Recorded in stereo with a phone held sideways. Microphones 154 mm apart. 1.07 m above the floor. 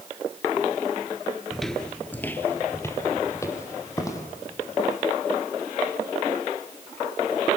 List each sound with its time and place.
1.5 s footsteps: centre (ahead or behind), 1.0 m; by 4.2 s 20° left (ahead or behind), 3.5 m